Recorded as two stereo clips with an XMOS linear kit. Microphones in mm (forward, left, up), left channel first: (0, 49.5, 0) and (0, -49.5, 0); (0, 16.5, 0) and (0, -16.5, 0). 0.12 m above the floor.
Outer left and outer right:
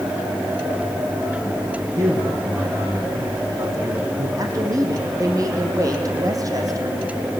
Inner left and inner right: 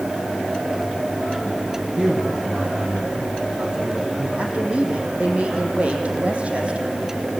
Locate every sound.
2.0 s a man speaking: 35° right (ahead or behind), 4.5 m
4.4 s a woman speaking: 35° right (ahead or behind), 4 m